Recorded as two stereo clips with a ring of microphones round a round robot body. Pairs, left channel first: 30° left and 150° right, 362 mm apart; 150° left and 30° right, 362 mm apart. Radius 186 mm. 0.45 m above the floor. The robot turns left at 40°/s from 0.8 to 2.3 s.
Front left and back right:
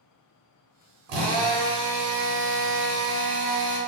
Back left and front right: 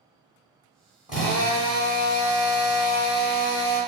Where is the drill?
115° right, 0.9 m; by 3.8 s 165° right, 0.9 m.